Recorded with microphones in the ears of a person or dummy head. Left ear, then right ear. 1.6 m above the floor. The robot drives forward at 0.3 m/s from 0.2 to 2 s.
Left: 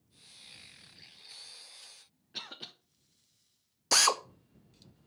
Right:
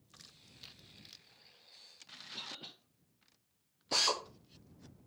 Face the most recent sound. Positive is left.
turn(degrees=50)  # may be behind; listen again after turning